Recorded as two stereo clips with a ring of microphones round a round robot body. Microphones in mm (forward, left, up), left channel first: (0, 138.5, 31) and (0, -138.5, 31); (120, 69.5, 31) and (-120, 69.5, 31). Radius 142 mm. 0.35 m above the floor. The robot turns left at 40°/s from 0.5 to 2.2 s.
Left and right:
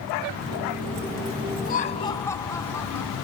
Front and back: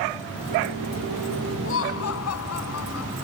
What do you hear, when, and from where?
1.6 s laughter: 30° left; by 3.2 s 10° left